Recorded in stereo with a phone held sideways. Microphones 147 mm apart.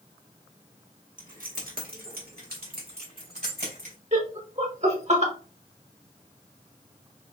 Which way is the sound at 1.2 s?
65° right (ahead or behind).